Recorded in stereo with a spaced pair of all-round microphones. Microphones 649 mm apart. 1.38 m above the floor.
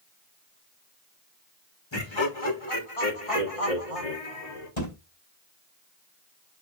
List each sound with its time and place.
1.9 s laughter: 40° left (ahead or behind), 2.5 m; by 4.7 s 65° left (ahead or behind), 3.5 m
4.8 s a thud: 80° left, 4 m